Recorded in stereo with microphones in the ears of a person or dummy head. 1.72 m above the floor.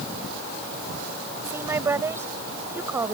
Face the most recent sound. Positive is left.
turn(degrees=-10)  # may be behind; listen again after turning